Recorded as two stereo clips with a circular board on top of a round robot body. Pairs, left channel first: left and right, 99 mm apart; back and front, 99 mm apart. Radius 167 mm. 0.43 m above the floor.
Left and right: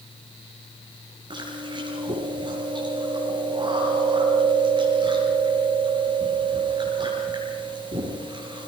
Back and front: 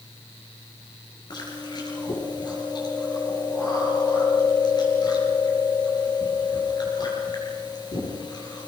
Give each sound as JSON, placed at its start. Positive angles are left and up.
{"t": 1.3, "sound": "chewing", "azimuth_deg": -135, "distance_m": 6.5}